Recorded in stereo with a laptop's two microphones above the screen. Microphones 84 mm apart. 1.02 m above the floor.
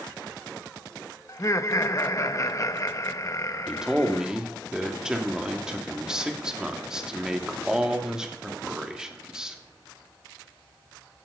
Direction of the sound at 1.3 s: 40° left (ahead or behind).